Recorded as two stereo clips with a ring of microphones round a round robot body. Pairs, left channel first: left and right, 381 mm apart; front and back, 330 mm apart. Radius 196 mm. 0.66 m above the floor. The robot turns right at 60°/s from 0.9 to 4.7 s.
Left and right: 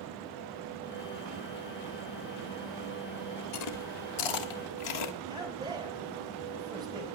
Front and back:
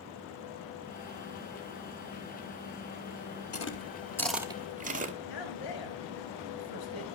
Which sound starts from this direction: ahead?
A man speaking, at 5.3 s.